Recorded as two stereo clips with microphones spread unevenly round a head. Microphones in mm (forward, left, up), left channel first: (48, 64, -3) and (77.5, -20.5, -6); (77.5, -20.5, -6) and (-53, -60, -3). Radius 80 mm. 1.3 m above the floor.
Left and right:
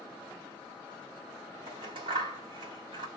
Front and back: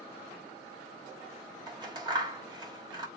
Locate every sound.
1.7 s scissors: 110° right, 1.7 m